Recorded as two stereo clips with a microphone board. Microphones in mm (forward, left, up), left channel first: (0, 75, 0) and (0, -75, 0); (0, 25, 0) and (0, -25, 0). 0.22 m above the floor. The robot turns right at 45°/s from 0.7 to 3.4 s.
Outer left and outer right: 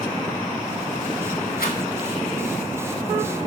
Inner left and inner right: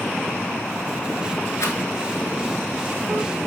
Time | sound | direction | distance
1.6 | a rattle | 80° left | 0.5 m